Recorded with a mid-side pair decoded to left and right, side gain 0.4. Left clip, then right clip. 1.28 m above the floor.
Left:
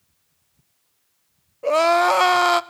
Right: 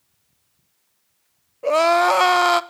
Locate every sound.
1.6 s crying: 5° right, 0.8 m